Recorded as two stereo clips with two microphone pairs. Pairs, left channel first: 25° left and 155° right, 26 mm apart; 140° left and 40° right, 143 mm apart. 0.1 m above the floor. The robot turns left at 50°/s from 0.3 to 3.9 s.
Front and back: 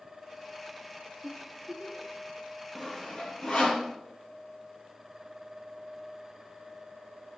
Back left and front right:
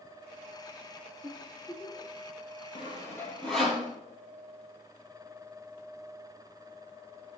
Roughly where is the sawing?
Left.